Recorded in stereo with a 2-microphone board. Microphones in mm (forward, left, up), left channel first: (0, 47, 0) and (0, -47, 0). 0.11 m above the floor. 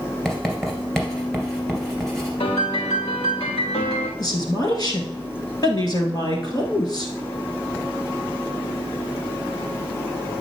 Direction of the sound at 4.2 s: 45° left (ahead or behind).